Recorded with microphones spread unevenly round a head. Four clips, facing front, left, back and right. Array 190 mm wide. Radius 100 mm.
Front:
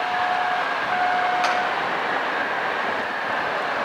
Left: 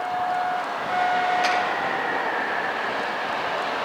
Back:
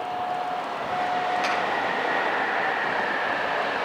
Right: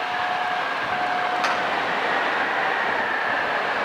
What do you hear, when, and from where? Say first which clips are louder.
1.4 s a finger snap: left 1 dB, front 4 dB; 40° right, 9 m